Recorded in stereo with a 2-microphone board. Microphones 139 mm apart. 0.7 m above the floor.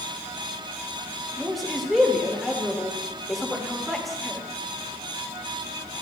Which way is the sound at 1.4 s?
Centre (ahead or behind).